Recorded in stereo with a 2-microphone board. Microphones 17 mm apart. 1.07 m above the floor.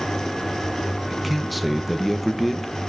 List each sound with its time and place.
1.1 s a man speaking: 10° right (ahead or behind), 1.0 m